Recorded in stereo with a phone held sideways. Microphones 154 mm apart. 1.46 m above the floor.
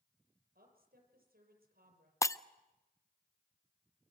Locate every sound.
0.6 s a woman speaking: 85° right, 6.5 m
2.2 s breaking glass: 20° left (ahead or behind), 0.5 m